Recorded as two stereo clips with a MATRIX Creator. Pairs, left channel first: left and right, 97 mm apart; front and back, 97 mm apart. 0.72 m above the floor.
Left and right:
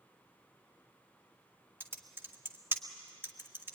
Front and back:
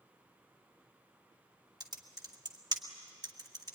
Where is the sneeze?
No sneeze in this recording.